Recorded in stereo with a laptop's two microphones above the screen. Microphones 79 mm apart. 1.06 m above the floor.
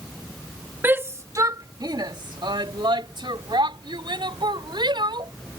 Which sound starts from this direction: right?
A shout, at 0.8 s.